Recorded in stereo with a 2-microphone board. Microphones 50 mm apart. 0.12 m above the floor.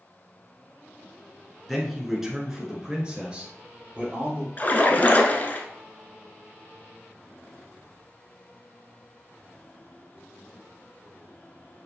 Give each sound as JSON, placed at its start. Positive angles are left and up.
{"t": 1.7, "sound": "a man speaking", "side_deg": 0, "distance_m": 1.3}
{"t": 4.6, "sound": "a splash", "side_deg": 35, "distance_m": 0.6}